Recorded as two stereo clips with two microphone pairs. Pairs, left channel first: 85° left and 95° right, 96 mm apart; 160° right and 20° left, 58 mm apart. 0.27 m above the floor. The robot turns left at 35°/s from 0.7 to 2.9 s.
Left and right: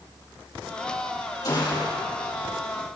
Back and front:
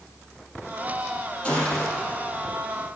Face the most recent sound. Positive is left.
turn(degrees=80)